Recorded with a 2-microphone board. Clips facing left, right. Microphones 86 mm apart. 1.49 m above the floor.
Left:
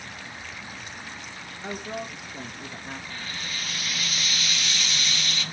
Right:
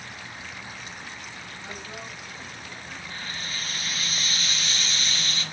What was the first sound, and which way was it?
A woman speaking, 50° left (ahead or behind).